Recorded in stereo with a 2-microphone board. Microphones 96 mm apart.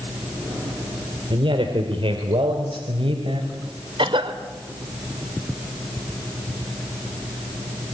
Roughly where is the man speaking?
Right.